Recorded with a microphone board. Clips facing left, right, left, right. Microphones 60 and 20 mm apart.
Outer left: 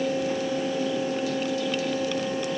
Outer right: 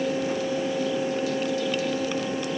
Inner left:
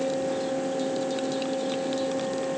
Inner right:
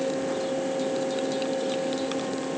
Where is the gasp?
I don't hear a gasp.